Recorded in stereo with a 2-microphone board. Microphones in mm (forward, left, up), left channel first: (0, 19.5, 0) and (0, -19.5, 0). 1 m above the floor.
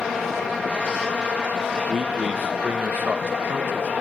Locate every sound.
1.9 s a man speaking: 25° right (ahead or behind), 0.8 m; by 3.9 s 60° right (ahead or behind), 1.6 m